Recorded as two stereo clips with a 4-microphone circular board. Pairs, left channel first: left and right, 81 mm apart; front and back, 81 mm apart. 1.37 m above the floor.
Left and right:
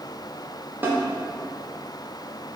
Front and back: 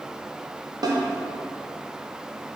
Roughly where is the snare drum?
Behind right.